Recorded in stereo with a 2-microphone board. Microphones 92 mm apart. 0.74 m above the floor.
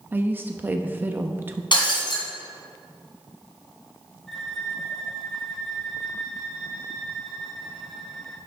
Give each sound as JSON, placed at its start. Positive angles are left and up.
{"t": 0.1, "sound": "a woman speaking", "side_deg": -20, "distance_m": 0.7}
{"t": 1.7, "sound": "breaking glass", "side_deg": 60, "distance_m": 2.5}
{"t": 4.3, "sound": "a violin", "side_deg": 0, "distance_m": 1.7}